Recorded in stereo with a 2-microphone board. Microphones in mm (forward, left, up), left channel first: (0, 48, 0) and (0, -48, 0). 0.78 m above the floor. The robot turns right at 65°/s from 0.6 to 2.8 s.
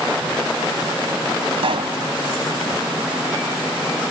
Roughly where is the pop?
Right.